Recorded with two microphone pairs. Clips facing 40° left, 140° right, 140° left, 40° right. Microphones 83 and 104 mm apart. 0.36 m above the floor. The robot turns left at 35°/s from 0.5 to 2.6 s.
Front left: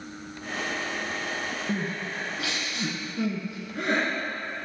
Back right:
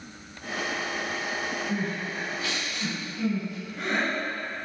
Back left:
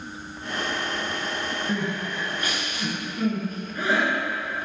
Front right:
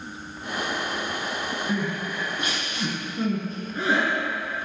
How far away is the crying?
About 2 m.